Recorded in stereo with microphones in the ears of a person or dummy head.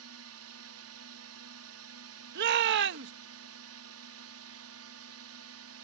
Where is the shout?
60° right (ahead or behind).